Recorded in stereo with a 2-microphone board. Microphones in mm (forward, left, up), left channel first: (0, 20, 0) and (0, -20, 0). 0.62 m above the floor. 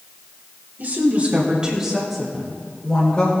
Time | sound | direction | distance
0.8 | a woman speaking | 50° right (ahead or behind) | 2.5 m